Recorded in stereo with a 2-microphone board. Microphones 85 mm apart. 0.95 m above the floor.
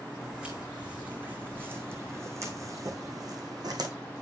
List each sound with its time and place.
0.2 s footsteps: 10° right (ahead or behind), 2.5 m; by 3.9 s 60° right (ahead or behind), 1.8 m